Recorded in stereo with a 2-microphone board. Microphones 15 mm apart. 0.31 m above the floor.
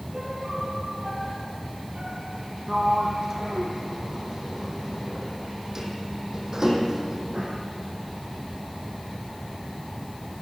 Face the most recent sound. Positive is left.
turn(degrees=-30)  # may be behind; listen again after turning